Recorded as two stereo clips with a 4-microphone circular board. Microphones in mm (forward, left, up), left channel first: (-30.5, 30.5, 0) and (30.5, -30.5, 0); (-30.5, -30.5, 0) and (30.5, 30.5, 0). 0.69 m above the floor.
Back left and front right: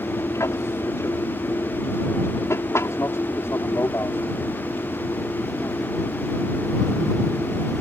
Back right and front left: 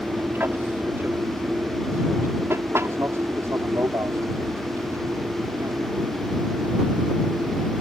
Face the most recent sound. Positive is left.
turn(degrees=80)